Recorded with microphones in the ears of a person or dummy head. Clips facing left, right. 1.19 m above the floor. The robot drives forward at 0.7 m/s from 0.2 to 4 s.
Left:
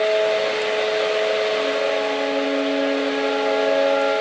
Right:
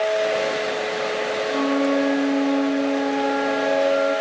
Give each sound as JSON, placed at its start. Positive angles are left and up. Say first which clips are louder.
{"t": 1.5, "sound": "a flute", "louder": "right 1 dB", "side_deg": -80, "distance_m": 6.0}